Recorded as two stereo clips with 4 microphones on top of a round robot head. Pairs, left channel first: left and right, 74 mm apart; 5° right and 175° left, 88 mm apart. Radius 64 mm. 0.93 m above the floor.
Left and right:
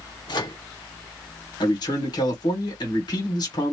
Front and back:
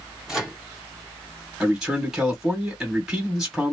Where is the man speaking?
90° left, 2 m.